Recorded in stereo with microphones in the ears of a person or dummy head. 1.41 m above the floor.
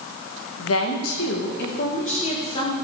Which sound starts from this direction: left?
A woman speaking, at 0.6 s.